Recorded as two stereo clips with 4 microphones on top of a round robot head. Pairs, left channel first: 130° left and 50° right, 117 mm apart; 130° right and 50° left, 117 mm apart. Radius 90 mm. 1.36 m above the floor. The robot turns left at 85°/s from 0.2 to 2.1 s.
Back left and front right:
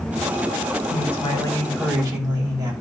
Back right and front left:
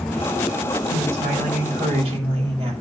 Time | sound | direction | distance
0.9 | a woman speaking | 110° left | 6 m